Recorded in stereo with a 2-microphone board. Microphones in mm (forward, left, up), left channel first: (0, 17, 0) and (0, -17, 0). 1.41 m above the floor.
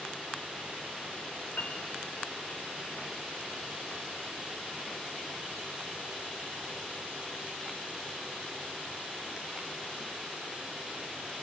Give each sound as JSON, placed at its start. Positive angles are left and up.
{"t": 1.6, "sound": "a piano", "side_deg": 75, "distance_m": 3.5}